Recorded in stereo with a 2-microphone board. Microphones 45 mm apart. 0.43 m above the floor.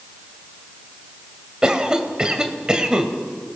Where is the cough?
20° right (ahead or behind), 2 m.